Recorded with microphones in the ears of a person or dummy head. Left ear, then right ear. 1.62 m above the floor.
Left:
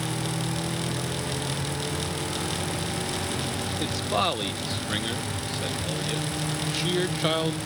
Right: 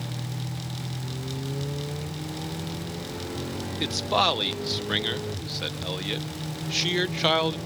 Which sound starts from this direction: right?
A man speaking, at 3.8 s.